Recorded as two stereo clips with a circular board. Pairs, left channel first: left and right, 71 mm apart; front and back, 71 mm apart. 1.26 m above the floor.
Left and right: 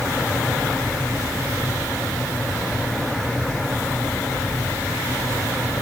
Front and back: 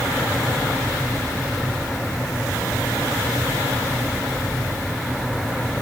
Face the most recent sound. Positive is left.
No sound to turn to.